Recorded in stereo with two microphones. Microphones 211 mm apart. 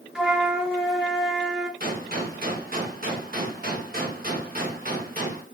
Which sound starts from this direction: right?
A gunshot, at 1.8 s.